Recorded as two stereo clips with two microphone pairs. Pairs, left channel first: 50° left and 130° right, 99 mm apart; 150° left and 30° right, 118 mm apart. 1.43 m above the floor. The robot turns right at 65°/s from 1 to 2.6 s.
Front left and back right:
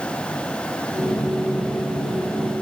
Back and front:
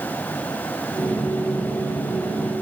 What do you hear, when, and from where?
Only background noise.